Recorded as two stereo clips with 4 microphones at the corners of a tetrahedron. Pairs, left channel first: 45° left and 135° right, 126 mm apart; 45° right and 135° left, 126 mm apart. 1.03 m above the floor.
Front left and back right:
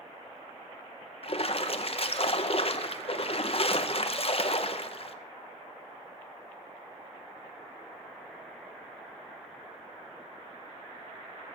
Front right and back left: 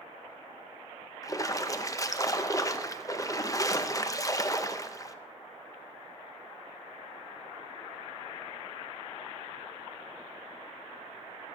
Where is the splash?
10° left, 0.7 m.